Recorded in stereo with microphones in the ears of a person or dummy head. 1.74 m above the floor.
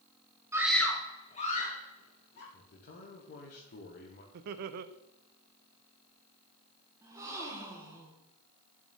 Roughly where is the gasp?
Centre.